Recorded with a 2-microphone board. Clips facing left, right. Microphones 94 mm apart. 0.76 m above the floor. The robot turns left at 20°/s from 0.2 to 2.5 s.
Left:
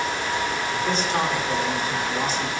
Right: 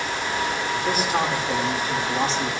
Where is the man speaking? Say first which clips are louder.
Right 1 dB; 5° right, 2 m; by 2.6 s 40° right, 2 m.